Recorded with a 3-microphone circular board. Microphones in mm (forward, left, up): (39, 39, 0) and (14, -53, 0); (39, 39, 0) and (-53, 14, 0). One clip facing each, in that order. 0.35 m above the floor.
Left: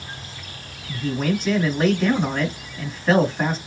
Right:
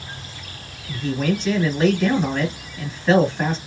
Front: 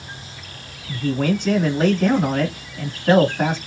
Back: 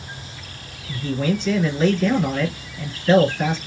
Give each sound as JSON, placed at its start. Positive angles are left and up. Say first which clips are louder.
{"t": 0.9, "sound": "a man speaking", "louder": "right 1 dB, front 2 dB", "azimuth_deg": -5, "distance_m": 2.0}